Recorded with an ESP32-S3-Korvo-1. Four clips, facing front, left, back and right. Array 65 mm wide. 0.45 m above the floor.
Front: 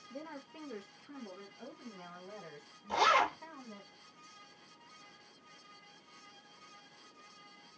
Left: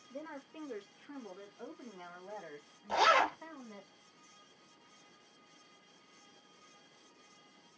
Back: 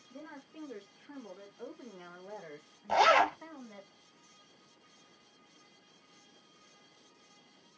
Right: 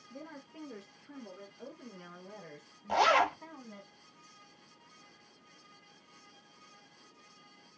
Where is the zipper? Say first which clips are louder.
Right 2 dB, back 4 dB; 165° right, 1.6 m.